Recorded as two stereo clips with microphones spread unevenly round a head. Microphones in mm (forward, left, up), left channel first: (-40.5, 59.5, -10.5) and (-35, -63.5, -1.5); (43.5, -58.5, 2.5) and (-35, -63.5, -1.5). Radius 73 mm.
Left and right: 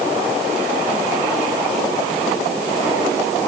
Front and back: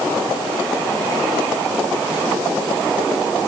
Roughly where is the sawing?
No sawing in this recording.